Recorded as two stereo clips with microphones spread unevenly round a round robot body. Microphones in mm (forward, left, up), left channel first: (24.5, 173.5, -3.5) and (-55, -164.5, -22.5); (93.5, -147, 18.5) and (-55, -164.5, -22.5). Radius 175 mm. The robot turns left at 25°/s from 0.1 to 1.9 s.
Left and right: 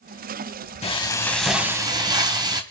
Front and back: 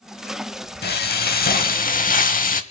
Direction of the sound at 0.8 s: Straight ahead.